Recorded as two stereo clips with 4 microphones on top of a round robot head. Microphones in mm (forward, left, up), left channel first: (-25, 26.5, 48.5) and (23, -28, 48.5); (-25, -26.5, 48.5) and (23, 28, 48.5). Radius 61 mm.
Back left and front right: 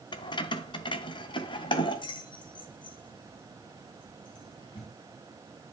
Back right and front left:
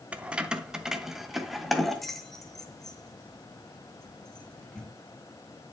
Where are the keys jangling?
120° left, 1.3 m; by 4.9 s 150° left, 3.5 m.